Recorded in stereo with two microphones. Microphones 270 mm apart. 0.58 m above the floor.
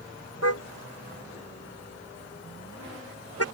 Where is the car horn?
60° left (ahead or behind).